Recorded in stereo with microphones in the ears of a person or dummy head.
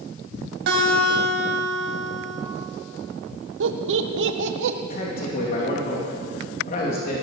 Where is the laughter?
75° right (ahead or behind), 0.9 m.